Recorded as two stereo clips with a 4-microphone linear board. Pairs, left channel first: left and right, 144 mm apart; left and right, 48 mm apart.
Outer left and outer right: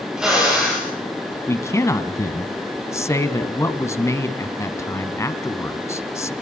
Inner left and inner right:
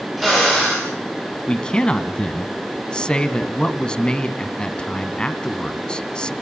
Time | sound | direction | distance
0.2 | a drill | 5° right (ahead or behind) | 9.5 m
1.5 | a man speaking | 20° left (ahead or behind) | 1.5 m